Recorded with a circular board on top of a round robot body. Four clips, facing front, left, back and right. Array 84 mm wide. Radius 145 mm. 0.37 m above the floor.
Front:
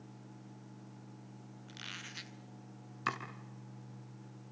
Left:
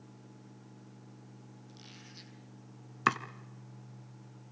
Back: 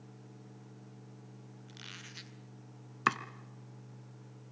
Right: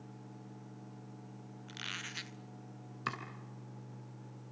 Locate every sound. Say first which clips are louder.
1.7 s a squeak: right 7 dB, front 4 dB; 80° right, 1.1 m
3.1 s chopping: left 11 dB, back 6 dB; 125° left, 1.5 m